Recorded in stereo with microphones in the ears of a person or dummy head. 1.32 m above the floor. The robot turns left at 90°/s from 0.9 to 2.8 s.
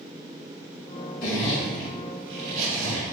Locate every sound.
1.2 s a zipper: 55° left (ahead or behind), 1.2 m; by 3.1 s 70° right (ahead or behind), 1.2 m